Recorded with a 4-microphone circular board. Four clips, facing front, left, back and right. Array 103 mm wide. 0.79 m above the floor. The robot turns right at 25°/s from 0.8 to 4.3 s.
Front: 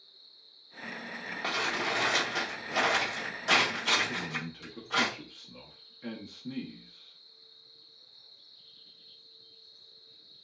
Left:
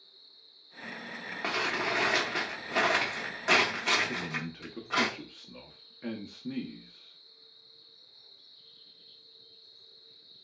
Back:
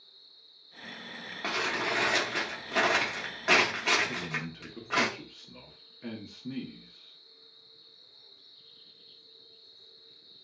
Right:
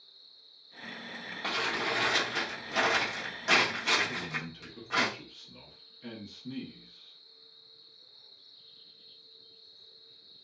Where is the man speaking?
95° left, 0.5 m; by 7.2 s 100° left, 0.5 m.